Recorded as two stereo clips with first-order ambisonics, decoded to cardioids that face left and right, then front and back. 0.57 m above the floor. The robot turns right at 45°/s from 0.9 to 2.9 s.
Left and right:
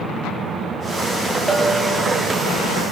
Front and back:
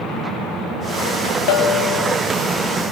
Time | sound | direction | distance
1.5 | a bell | 10° right | 3.5 m